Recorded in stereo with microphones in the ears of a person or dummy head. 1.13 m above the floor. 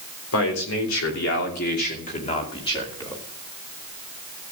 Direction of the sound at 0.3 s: 80° left.